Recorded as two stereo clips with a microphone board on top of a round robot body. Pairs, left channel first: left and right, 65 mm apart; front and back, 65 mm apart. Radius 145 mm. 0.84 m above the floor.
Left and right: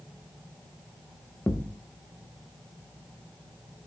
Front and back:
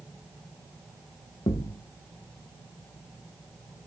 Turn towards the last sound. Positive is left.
turn(degrees=20)